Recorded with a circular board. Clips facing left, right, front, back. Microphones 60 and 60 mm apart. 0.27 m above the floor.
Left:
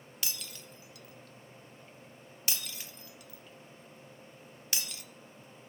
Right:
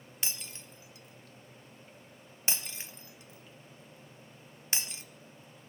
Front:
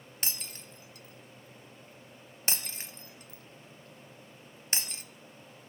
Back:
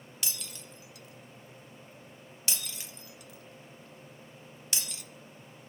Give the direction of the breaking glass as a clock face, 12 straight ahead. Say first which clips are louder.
Right 1 dB, front 1 dB; 1 o'clock.